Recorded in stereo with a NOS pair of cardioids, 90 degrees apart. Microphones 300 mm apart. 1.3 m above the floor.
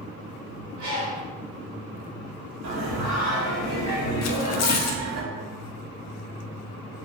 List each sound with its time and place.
0.8 s a bird: 70° right, 1.7 m
2.6 s singing: 65° right, 1.2 m
4.2 s tearing paper: 60° left, 0.5 m